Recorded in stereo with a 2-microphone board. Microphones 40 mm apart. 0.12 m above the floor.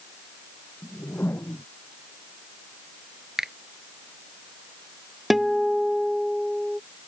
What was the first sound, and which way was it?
A whoosh, 60° left (ahead or behind).